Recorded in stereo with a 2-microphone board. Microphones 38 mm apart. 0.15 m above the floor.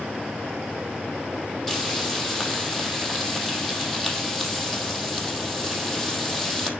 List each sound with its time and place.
1.7 s frying: centre (ahead or behind), 3.5 m